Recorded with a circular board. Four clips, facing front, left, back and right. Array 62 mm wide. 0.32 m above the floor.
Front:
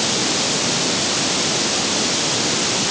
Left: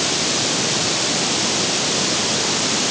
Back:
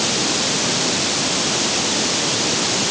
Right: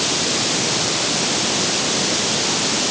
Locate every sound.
Only background noise.